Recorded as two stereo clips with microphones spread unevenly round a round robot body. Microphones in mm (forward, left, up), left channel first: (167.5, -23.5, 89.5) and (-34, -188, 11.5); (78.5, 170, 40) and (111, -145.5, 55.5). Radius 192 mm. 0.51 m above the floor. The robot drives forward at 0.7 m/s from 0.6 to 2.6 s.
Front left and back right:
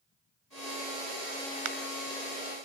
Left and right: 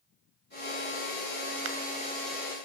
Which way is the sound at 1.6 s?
140° right.